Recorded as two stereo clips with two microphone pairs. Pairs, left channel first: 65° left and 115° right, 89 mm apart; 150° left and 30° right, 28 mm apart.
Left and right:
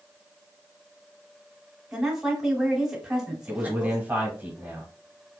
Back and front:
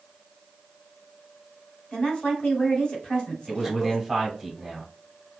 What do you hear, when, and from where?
1.9 s a woman speaking: 165° left, 1.1 m
3.5 s a man speaking: 115° right, 0.9 m